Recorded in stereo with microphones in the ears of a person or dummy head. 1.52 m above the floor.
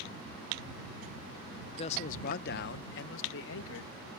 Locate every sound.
1.8 s a man speaking: 40° left (ahead or behind); by 4.0 s 85° left